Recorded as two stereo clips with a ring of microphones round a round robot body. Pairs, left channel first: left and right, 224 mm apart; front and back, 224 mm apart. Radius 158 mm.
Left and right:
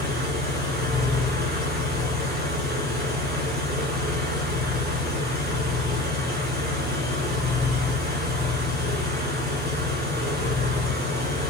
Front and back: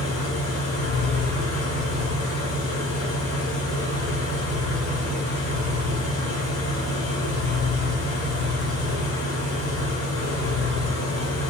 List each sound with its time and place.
0.0 s an engine running: 45° right, 3.5 m